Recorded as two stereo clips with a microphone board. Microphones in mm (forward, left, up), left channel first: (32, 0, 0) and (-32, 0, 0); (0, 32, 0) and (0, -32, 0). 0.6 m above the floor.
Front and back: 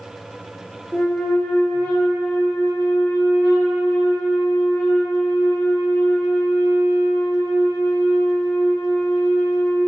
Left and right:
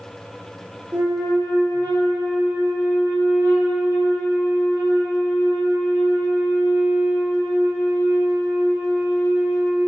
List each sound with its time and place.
0.9 s a flute: 60° right, 0.7 m